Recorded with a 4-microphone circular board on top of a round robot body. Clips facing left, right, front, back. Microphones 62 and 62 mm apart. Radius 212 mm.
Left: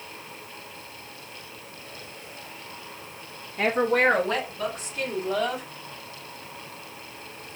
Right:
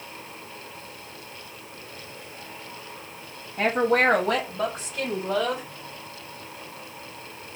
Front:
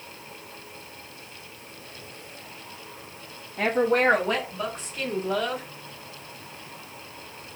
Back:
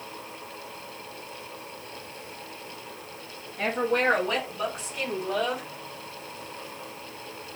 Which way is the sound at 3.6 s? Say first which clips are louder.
Right 1 dB, front 4 dB; 30° right.